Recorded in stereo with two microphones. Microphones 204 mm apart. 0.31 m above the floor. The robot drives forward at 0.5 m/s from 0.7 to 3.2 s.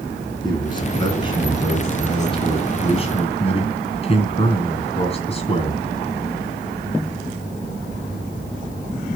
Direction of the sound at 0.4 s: 20° left (ahead or behind).